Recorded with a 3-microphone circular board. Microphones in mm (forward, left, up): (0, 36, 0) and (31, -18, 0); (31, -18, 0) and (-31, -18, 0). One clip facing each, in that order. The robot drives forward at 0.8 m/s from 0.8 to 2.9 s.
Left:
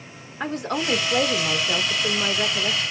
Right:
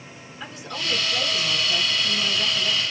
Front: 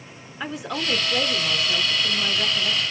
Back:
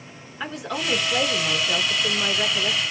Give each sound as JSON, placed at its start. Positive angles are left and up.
{"t": 0.4, "sound": "a woman speaking", "azimuth_deg": 90, "distance_m": 1.5}